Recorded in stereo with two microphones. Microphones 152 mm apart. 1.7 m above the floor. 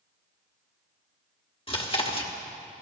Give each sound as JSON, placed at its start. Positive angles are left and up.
{"t": 1.7, "sound": "chewing", "side_deg": 35, "distance_m": 1.4}